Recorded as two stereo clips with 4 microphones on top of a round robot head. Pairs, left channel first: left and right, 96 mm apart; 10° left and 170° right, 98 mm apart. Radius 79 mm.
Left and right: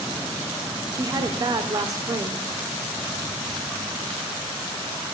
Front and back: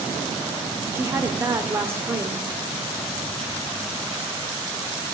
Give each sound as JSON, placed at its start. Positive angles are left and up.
{"t": 0.9, "sound": "a woman speaking", "azimuth_deg": -120, "distance_m": 1.2}